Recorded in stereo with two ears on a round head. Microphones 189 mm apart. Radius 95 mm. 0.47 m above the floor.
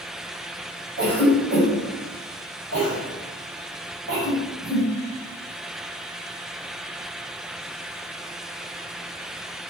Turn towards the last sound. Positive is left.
turn(degrees=-50)  # may be behind; listen again after turning